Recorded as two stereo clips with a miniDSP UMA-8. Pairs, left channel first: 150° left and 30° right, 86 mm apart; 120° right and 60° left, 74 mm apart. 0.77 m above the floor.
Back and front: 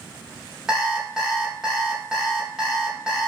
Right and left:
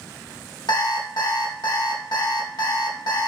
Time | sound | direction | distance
0.7 | an alarm clock | 110° right | 0.6 m